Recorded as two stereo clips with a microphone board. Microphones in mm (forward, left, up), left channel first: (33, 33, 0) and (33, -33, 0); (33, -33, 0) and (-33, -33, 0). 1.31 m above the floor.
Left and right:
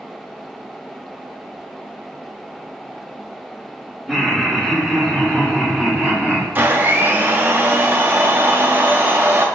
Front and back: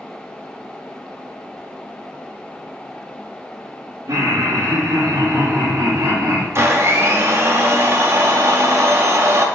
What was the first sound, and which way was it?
Laughter, straight behind.